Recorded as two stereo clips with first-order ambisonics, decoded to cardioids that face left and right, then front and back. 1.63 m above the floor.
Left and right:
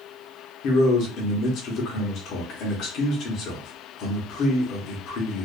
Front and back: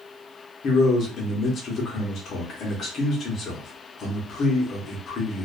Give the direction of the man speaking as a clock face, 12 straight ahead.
10 o'clock.